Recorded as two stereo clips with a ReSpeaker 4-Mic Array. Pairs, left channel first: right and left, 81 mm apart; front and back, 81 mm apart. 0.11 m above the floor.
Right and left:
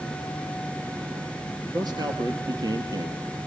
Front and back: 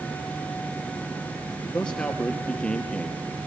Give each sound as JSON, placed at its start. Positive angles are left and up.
{"t": 1.7, "sound": "a man speaking", "azimuth_deg": 75, "distance_m": 2.5}